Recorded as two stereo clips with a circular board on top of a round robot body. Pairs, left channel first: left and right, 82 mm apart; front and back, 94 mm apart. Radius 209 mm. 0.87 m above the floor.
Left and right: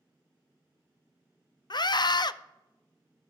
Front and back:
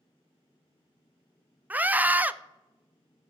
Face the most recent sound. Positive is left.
turn(degrees=110)